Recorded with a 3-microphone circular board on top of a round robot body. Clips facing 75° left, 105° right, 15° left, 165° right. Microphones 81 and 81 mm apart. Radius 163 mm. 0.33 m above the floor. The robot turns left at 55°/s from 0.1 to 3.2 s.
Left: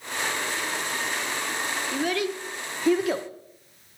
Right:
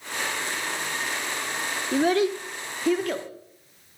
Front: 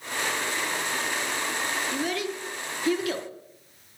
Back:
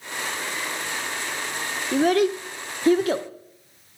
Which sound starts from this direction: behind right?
A child speaking, at 1.9 s.